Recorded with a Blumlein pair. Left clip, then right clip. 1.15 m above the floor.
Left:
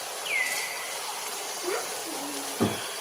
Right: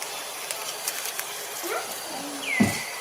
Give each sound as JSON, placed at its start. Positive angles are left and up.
{"t": 1.6, "sound": "a child speaking", "azimuth_deg": -15, "distance_m": 0.7}